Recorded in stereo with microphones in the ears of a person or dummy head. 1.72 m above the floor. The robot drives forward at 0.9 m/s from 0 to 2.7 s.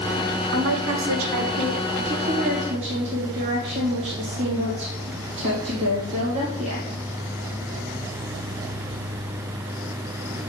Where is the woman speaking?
70° right (ahead or behind), 1.2 m; by 6.9 s 35° right (ahead or behind), 2.0 m.